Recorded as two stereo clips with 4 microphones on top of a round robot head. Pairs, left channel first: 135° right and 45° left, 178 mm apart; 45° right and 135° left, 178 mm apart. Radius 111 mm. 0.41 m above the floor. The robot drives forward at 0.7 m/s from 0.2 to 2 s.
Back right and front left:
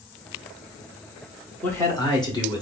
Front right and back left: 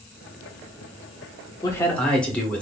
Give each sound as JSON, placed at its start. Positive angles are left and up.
{"t": 1.6, "sound": "a man speaking", "azimuth_deg": -65, "distance_m": 0.8}